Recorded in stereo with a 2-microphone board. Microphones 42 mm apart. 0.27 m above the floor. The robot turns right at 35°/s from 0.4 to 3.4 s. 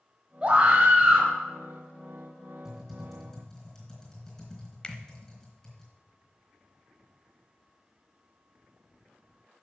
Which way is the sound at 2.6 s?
10° right (ahead or behind).